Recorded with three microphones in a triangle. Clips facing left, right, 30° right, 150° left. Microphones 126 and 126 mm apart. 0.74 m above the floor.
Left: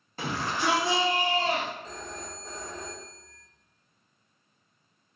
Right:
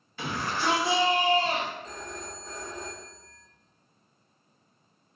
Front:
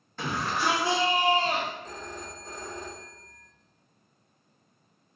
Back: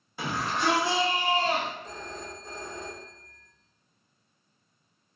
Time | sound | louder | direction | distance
0.2 | a shout | even, even | 75° left | 0.9 m
1.8 | a phone ringing | even, even | straight ahead | 1.0 m